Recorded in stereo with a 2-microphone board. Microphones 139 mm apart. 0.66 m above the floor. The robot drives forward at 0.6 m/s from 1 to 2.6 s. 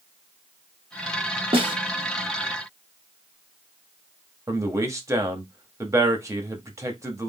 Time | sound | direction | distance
1.5 | a snare drum | 40° right (ahead or behind) | 0.9 m
4.5 | a man speaking | 20° right (ahead or behind) | 0.9 m